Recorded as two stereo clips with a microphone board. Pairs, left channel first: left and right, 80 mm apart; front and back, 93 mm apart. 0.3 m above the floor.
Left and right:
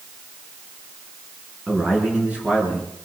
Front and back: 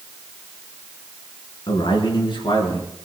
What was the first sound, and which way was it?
A man speaking, 15° right.